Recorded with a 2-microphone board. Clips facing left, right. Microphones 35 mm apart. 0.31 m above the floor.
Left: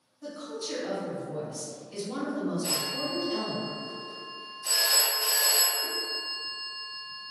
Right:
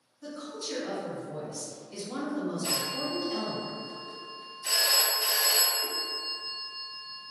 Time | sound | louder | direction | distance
0.2 | a woman speaking | left 2 dB | 35° left (ahead or behind) | 2.0 m
2.6 | a phone ringing | even | 30° right (ahead or behind) | 0.5 m